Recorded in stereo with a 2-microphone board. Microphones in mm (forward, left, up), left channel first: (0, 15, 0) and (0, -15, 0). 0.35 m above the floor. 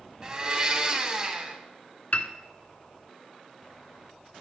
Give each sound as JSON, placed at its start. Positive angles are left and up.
{"t": 0.2, "sound": "a blender", "side_deg": -25, "distance_m": 1.1}
{"t": 2.1, "sound": "a piano", "side_deg": 55, "distance_m": 0.6}